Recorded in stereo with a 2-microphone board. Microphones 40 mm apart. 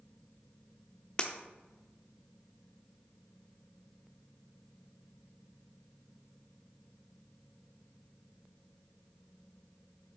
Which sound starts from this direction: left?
Breaking glass, at 1.2 s.